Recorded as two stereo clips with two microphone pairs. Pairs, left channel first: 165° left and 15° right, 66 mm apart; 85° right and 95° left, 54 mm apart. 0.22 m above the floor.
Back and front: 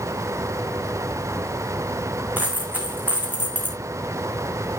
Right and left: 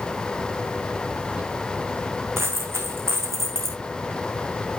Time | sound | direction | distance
2.4 | a dropped coin | 50° left | 3 m